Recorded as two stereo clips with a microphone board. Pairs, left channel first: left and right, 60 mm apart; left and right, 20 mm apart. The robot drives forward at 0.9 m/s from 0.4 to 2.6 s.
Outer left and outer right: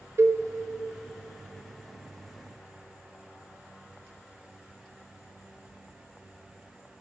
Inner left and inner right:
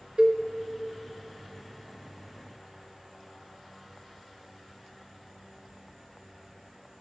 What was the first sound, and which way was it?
A cowbell, 45° right (ahead or behind).